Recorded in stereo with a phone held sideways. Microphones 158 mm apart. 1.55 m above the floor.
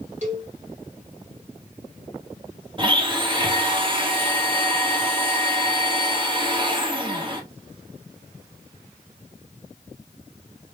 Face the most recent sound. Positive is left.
turn(degrees=-30)  # may be behind; listen again after turning